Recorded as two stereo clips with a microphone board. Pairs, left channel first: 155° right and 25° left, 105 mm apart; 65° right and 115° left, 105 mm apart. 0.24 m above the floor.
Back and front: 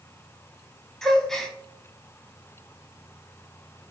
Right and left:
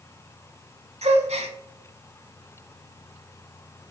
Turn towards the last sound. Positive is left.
turn(degrees=115)